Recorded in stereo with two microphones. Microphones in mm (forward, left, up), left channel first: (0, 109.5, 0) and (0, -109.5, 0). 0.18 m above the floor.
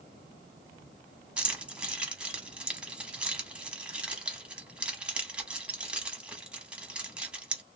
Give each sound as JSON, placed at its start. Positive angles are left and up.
{"t": 1.4, "sound": "keys jangling", "side_deg": -5, "distance_m": 0.9}